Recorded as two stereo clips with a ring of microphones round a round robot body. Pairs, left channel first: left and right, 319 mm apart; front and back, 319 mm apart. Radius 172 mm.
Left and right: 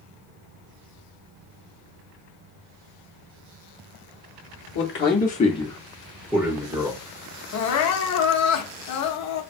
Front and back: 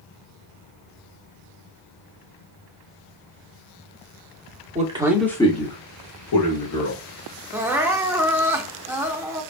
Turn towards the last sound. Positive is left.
turn(degrees=100)